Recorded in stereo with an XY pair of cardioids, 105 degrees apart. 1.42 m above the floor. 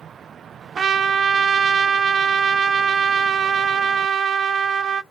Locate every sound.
0.8 s a trumpet: 50° right, 0.5 m